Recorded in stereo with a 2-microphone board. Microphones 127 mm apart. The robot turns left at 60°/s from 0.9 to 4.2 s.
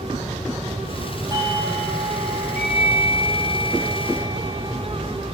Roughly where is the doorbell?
Ahead right.